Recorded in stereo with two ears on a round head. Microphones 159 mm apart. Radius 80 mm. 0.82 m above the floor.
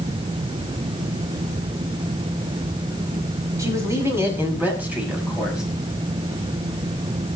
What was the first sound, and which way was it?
A man speaking, 20° right (ahead or behind).